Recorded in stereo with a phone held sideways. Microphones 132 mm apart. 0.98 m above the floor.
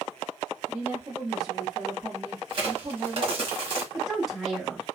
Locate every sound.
0.7 s a woman speaking: 20° right (ahead or behind), 1.1 m; by 3.5 s 10° right (ahead or behind), 1.1 m
2.5 s a crack: 40° right (ahead or behind), 1.2 m
3.9 s a woman speaking: centre (ahead or behind), 1.0 m